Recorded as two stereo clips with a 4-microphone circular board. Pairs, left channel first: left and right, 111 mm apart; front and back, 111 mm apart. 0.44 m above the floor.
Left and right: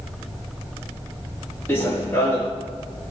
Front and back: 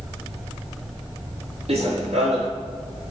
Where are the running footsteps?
160° left, 4 m.